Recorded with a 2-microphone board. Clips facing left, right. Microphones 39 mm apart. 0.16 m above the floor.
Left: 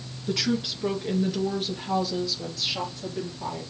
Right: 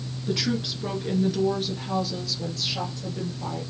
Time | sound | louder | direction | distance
0.3 | a woman speaking | even | centre (ahead or behind) | 2.5 m